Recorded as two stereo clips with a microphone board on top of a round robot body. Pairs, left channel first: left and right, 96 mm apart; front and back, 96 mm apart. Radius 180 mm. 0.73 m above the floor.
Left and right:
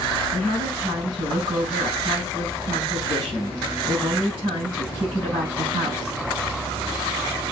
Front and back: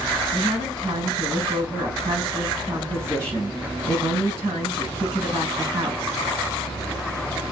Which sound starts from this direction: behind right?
A woman speaking, at 0.3 s.